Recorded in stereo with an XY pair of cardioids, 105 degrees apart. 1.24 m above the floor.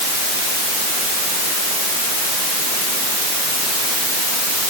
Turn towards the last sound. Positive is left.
No sound to turn to.